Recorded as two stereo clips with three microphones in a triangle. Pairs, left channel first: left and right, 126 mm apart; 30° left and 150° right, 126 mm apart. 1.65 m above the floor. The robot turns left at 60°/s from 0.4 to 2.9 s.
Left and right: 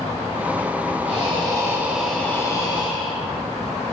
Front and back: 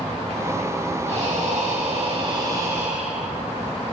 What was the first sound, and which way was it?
Breathing, 120° right.